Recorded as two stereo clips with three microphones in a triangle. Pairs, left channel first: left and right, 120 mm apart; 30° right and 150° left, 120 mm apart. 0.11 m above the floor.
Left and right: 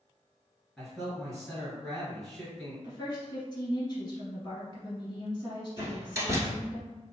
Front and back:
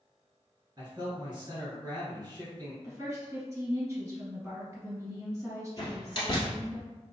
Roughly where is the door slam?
Ahead right.